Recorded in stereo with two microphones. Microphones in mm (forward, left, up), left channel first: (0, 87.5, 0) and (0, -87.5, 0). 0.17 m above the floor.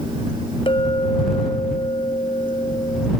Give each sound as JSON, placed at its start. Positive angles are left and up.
{"t": 0.7, "sound": "a clink", "side_deg": 30}